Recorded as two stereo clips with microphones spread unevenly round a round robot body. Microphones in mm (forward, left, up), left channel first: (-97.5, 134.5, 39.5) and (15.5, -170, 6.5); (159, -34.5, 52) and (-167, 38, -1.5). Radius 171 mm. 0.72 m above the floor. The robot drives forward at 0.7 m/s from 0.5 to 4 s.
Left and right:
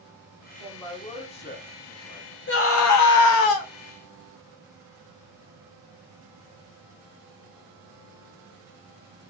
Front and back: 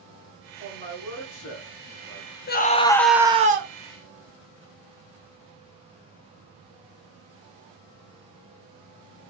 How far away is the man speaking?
About 1.5 m.